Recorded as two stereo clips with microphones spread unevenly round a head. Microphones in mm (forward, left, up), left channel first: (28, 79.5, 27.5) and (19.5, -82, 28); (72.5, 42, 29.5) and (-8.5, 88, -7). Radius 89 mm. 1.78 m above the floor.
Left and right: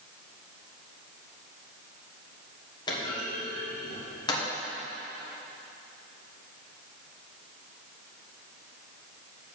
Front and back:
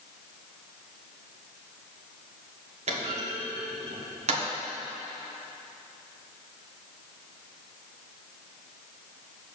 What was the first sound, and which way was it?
A clunk, 155° left.